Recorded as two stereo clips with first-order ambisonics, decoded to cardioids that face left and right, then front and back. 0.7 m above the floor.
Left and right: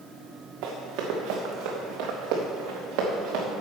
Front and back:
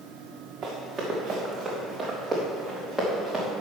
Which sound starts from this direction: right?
Running footsteps, at 0.6 s.